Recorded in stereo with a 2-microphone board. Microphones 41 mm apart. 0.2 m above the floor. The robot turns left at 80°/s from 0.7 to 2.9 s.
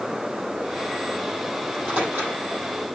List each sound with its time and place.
1.6 s a microwave: 10° right (ahead or behind), 6 m; by 2.4 s 65° right (ahead or behind), 6 m